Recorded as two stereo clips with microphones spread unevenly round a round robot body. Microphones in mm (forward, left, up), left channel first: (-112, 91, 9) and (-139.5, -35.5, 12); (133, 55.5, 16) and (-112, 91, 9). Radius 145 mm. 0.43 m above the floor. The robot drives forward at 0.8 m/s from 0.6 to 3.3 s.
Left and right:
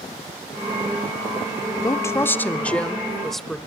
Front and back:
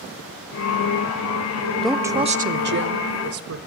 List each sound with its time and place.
1.8 s a woman speaking: 75° left, 0.8 m; by 3.7 s 165° left, 1.3 m